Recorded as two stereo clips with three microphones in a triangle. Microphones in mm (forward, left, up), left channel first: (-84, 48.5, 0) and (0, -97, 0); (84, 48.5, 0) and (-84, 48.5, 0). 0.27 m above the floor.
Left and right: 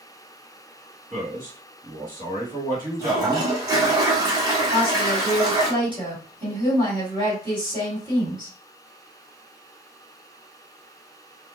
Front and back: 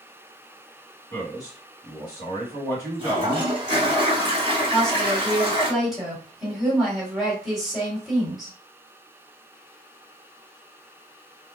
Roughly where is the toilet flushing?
Behind right.